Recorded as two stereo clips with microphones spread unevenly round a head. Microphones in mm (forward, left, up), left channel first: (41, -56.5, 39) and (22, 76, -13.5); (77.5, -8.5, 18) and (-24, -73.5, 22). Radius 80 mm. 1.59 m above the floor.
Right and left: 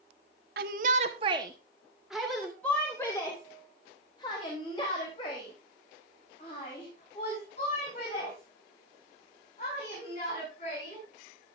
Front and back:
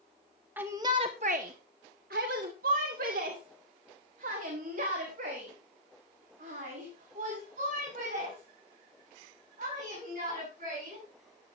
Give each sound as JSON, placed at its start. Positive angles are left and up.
{"t": 0.6, "sound": "a shout", "azimuth_deg": 135, "distance_m": 0.9}